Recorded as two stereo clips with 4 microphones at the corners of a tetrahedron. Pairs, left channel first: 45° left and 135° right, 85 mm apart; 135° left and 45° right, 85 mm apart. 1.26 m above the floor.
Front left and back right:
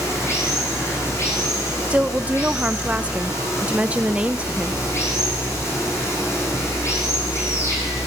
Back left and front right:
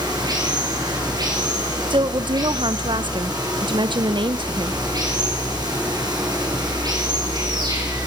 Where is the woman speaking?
60° right, 0.6 m.